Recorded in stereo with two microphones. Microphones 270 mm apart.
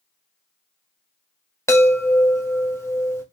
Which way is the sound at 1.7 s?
10° left (ahead or behind).